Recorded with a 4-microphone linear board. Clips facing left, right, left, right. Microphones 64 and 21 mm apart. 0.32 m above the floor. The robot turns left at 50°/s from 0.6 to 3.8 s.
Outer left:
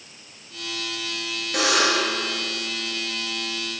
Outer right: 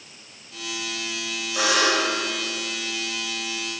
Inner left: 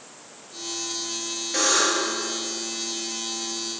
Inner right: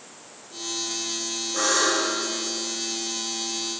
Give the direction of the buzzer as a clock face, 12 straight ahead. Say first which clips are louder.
Even, inner left 1 dB; 10 o'clock.